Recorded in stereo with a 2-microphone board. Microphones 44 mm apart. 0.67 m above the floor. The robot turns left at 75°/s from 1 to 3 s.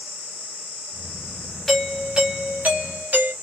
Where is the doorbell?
10° left, 1.5 m; by 3.3 s 90° right, 1.5 m.